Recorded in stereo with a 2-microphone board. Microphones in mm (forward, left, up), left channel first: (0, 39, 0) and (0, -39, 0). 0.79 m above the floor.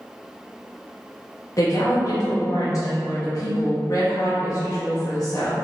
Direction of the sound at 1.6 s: 45° left (ahead or behind).